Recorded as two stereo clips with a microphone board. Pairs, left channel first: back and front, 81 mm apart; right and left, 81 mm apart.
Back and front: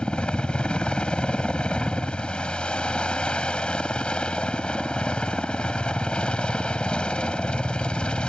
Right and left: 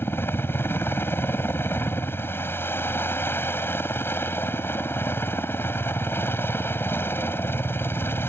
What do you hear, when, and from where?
0.0 s a helicopter: 115° right